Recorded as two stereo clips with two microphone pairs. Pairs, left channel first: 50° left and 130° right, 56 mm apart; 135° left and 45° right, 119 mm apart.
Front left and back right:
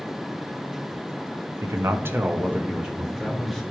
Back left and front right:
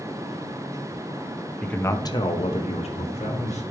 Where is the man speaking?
145° right, 0.8 m; by 3.6 s 145° left, 1.9 m.